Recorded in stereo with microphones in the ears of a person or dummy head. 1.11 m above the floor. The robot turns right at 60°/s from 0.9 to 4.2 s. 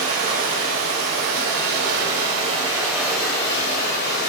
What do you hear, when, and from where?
0.0 s running water: 120° right, 0.8 m; by 4.3 s 75° left, 0.8 m